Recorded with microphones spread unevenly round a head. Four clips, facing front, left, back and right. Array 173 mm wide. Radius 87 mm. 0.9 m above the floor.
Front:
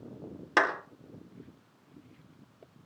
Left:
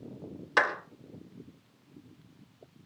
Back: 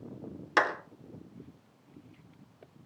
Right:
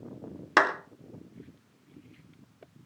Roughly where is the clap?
Ahead right.